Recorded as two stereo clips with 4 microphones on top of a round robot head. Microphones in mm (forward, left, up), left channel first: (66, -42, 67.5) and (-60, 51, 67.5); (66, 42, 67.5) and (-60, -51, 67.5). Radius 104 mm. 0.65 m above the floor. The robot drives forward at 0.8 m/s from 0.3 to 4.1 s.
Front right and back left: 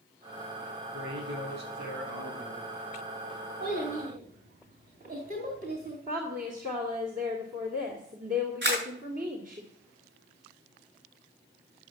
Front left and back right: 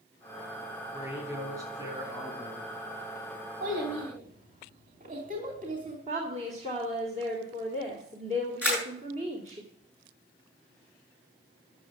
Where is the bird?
I don't hear a bird.